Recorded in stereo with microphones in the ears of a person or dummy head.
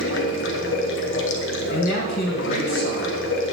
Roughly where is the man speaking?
Left.